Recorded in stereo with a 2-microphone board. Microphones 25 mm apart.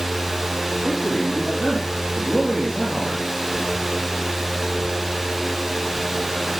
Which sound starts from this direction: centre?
A man speaking, at 0.8 s.